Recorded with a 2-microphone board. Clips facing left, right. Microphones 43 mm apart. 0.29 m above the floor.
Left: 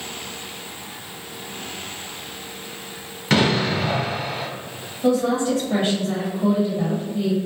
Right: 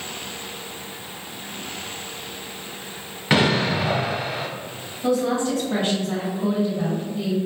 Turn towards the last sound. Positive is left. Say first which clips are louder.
# left 2 dB
turn(degrees=25)  # may be behind; listen again after turning